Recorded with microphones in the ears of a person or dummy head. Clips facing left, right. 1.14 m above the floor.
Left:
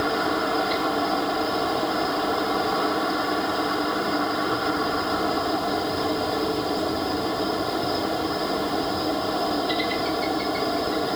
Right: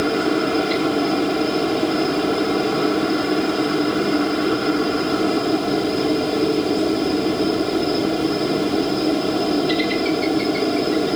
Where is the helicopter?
25° right (ahead or behind).